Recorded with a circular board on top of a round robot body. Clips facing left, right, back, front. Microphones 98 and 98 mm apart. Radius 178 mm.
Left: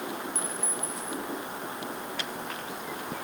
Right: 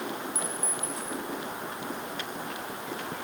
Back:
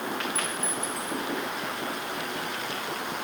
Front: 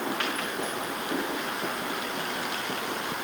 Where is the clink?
170° right.